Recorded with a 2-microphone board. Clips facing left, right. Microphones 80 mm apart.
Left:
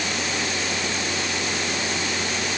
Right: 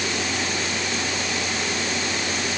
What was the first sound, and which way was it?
Only background noise.